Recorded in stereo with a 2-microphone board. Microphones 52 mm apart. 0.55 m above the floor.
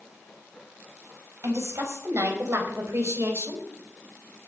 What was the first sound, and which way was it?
A woman speaking, 65° right (ahead or behind).